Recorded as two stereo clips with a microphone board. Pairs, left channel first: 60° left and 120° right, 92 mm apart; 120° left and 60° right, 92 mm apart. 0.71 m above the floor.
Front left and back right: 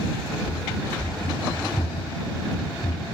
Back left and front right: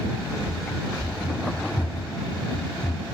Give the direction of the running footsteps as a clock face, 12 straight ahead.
9 o'clock.